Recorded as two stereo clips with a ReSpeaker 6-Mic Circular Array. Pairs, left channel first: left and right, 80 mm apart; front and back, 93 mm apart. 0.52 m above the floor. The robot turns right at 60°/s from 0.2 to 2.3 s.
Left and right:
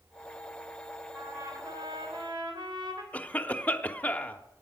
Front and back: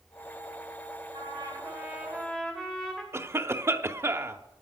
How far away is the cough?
About 0.8 m.